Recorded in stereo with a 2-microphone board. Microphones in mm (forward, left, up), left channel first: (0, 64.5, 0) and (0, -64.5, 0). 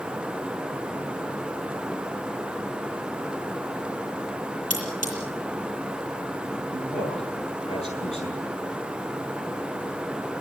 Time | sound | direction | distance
4.7 | cutlery clinking | 85° left | 8.5 m
6.7 | a man speaking | 50° left (ahead or behind) | 9.5 m